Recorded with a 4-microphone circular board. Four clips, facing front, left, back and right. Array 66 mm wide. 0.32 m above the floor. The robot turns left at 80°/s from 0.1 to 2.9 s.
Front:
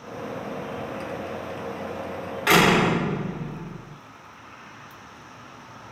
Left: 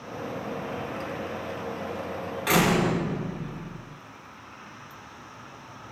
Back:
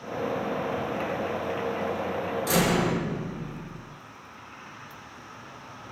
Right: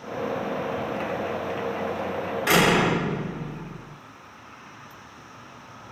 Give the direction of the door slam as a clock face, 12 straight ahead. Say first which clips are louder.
Right 3 dB, front 7 dB; 12 o'clock.